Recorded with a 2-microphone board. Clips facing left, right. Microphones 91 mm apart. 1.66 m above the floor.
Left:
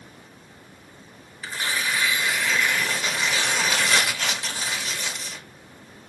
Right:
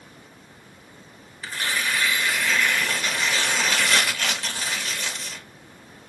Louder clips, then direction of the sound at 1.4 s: Even; 10° left (ahead or behind).